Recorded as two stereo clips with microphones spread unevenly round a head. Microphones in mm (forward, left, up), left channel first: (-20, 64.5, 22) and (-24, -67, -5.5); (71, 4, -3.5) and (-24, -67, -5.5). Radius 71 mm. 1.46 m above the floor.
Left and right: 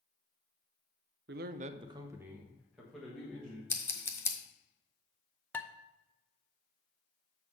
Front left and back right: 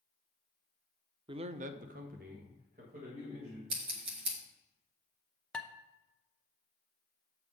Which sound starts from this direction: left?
Dishes clattering, at 5.5 s.